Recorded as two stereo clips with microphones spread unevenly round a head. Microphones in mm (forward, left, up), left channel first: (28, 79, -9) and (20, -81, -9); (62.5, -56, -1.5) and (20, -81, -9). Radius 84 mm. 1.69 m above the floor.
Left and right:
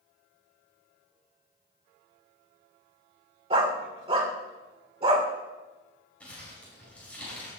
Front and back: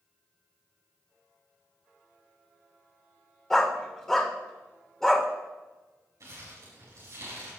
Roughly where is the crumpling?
Behind.